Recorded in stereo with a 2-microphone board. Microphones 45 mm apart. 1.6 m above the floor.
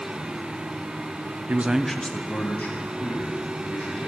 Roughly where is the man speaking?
Right.